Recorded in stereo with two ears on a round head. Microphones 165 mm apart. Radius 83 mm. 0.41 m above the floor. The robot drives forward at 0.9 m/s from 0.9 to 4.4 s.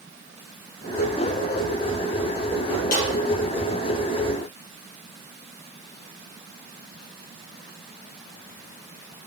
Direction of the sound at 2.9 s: 50° left (ahead or behind).